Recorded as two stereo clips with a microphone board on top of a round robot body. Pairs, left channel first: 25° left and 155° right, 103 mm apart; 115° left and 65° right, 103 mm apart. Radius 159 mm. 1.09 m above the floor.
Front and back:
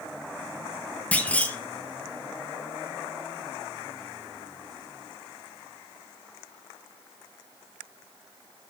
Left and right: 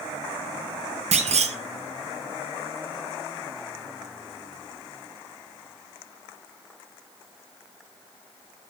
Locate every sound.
1.1 s a clunk: 55° right, 1.1 m